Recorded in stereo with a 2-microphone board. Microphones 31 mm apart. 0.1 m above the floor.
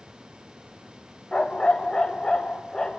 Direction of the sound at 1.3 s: 30° left (ahead or behind).